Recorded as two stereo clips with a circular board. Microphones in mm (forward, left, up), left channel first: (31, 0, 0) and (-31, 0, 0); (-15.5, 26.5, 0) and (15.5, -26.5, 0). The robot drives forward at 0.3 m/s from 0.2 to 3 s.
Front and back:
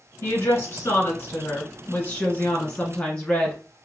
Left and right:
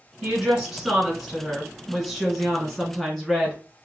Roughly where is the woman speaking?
Ahead.